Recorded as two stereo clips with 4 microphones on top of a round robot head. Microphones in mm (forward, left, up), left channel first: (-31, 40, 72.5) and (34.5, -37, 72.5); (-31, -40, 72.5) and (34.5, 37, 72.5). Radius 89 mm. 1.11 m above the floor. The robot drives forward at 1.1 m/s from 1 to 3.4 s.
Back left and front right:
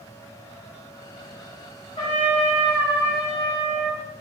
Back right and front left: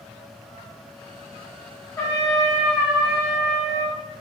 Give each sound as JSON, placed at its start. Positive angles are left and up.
{"t": 2.0, "sound": "a trumpet", "azimuth_deg": 165, "distance_m": 1.4}